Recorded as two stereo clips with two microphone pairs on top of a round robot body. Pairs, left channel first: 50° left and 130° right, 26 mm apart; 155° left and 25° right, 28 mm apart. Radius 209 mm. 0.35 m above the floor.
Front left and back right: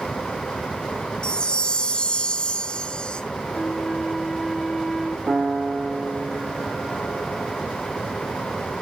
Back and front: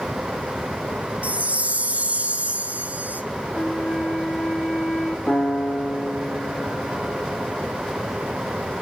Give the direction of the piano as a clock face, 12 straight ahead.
6 o'clock.